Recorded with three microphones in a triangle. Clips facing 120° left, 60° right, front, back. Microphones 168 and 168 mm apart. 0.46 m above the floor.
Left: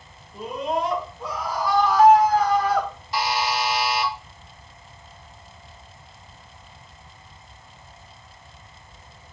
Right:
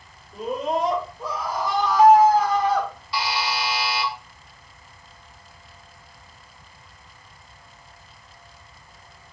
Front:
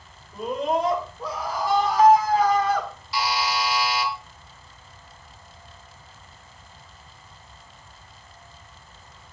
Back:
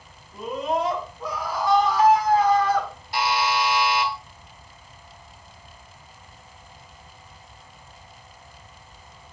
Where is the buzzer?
155° left, 0.9 m.